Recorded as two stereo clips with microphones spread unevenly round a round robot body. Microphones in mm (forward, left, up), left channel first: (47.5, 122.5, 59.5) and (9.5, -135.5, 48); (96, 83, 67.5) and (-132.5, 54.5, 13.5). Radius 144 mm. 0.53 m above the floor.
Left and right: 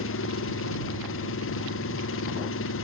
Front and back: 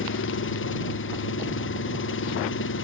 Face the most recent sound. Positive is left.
turn(degrees=40)